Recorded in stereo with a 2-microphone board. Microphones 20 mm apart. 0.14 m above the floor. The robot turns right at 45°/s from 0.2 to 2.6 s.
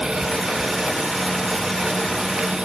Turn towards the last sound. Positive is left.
No sound to turn to.